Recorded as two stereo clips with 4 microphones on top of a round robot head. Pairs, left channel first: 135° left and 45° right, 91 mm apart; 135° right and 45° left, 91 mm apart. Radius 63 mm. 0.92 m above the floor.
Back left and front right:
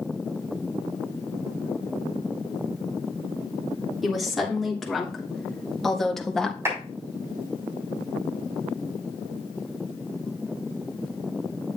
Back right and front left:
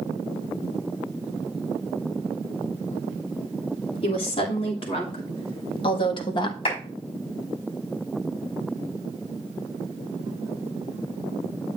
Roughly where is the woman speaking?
Behind right.